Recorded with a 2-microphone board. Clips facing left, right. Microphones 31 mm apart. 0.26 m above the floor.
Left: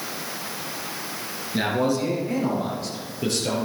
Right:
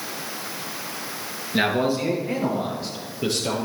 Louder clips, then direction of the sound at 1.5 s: Right 1 dB; 30° right (ahead or behind).